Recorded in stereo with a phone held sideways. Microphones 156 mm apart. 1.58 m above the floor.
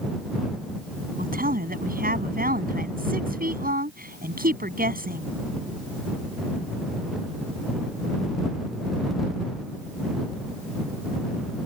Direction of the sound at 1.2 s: 70° right (ahead or behind).